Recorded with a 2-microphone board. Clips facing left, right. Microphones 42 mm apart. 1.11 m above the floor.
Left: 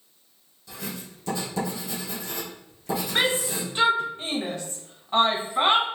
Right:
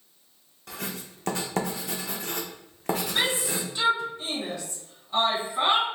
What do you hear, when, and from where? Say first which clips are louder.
0.7 s writing: even; 60° right (ahead or behind), 0.7 m
3.1 s a shout: left 2 dB; 45° left (ahead or behind), 0.9 m